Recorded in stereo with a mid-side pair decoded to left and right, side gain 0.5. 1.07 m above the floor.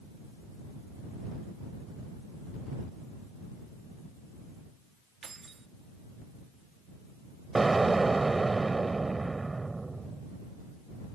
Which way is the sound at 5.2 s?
35° right.